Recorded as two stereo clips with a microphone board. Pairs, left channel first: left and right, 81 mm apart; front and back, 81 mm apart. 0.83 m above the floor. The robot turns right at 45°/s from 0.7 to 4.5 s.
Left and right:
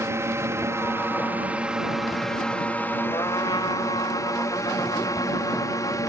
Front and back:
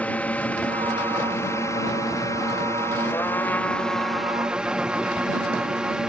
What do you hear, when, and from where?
0.0 s a drone: 60° right; by 6.1 s 105° left
3.1 s a trumpet: 50° left; by 6.0 s 110° left